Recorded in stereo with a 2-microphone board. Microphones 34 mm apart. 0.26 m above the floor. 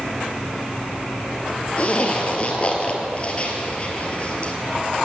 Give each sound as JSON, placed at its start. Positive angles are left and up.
{"t": 1.8, "sound": "a zipper", "side_deg": 35, "distance_m": 2.0}